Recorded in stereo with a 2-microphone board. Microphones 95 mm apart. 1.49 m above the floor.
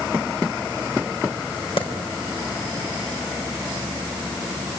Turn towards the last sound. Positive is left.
turn(degrees=85)